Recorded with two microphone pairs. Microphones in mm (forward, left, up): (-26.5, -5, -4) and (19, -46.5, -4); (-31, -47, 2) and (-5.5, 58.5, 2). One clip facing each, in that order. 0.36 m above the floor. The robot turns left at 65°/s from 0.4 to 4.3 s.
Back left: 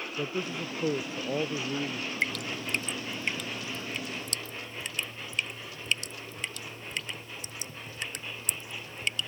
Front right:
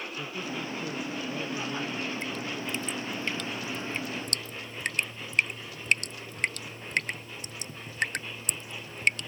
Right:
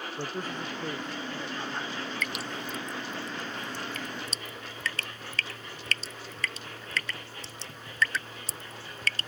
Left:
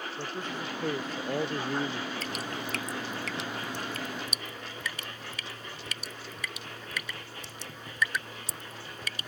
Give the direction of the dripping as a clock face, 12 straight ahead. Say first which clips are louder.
Back left 1 dB, even; 8 o'clock.